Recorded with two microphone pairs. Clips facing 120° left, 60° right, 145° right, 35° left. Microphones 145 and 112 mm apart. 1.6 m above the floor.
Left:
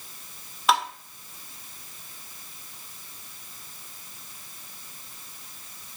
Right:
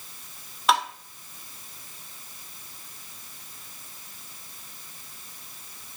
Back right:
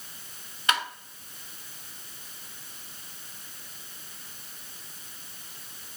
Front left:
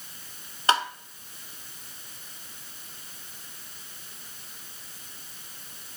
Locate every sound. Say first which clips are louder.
0.7 s tapping: even, front left 5 dB; 30° left, 1.4 m